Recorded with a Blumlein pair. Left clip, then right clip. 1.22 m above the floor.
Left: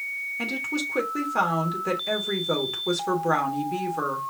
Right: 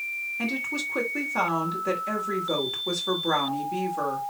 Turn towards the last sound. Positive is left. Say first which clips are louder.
# left 1 dB
turn(degrees=10)